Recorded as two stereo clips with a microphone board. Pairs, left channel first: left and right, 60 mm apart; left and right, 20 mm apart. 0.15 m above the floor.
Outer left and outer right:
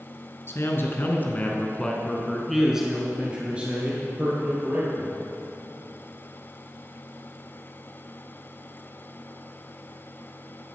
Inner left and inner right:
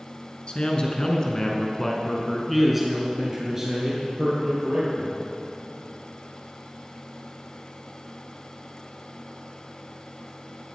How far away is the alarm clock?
I don't hear an alarm clock.